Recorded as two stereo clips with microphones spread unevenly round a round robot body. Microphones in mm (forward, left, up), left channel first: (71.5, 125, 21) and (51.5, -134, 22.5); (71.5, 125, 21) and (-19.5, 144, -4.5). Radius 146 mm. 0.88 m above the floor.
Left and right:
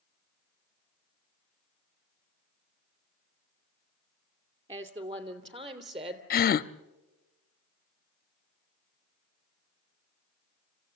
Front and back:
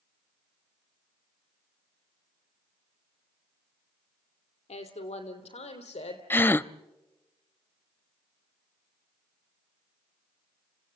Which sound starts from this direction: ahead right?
A woman speaking, at 4.7 s.